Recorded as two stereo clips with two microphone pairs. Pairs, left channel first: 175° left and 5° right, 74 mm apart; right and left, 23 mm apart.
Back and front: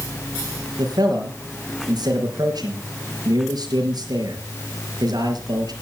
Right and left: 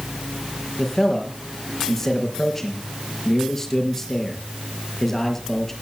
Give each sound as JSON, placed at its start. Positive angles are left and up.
{"t": 0.8, "sound": "a man speaking", "azimuth_deg": -20, "distance_m": 5.0}